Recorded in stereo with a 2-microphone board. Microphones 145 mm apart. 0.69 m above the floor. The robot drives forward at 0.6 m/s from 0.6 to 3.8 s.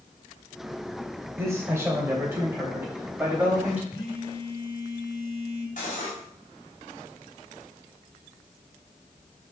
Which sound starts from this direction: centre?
A man speaking, at 1.4 s.